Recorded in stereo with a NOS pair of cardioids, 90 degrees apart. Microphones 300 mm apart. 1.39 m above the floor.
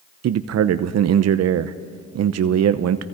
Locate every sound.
0.2 s a man speaking: 60° right, 0.8 m